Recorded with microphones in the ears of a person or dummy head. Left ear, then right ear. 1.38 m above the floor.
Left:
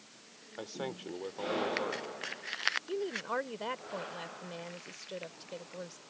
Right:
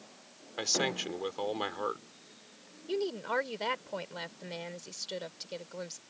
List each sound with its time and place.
0.6 s a man speaking: 70° right (ahead or behind)
2.9 s a woman speaking: 25° right (ahead or behind)